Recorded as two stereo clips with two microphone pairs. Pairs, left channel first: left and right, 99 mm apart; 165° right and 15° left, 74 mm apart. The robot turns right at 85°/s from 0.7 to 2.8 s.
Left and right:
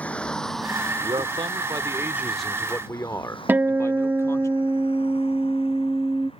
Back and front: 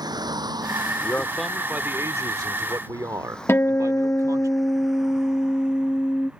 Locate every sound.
0.0 s a vehicle: 15° left; by 6.4 s 85° left
1.0 s a man speaking: 115° right; by 4.5 s 35° left
3.5 s a guitar: 145° right